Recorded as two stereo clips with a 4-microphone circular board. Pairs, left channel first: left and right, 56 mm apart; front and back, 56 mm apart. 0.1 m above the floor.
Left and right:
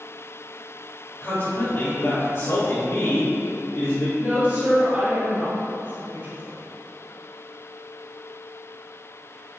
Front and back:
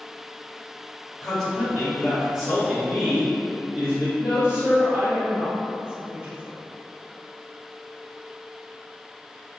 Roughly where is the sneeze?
No sneeze in this recording.